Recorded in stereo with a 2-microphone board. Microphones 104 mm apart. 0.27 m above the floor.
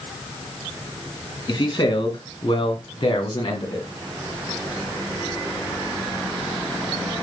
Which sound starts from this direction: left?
A man speaking, at 1.5 s.